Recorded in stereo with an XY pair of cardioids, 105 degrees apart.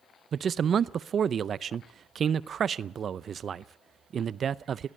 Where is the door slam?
No door slam in this recording.